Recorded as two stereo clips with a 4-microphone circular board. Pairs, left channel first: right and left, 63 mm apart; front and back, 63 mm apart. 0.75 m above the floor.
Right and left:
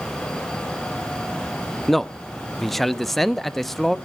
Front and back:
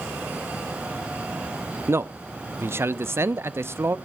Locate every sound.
1.9 s a man speaking: 175° right, 0.5 m